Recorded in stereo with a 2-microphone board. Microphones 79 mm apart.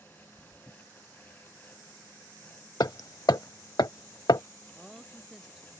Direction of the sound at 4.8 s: 5° right (ahead or behind).